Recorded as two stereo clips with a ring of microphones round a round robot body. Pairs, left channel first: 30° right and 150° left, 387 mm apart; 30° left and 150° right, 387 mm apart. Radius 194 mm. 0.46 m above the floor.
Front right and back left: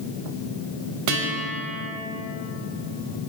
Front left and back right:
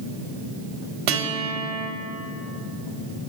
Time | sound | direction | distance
1.1 | a guitar | 170° right | 3 m